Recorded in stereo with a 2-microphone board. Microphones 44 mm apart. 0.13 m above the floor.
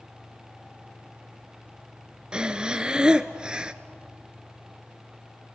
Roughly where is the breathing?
Centre.